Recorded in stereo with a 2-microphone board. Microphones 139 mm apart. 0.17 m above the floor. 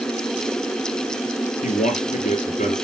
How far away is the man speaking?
About 3.5 m.